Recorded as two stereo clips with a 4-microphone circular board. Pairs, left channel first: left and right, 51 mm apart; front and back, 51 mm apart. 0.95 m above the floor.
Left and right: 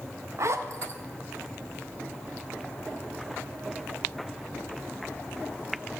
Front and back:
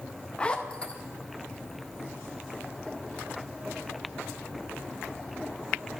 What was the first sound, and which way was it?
A zipper, 65° right.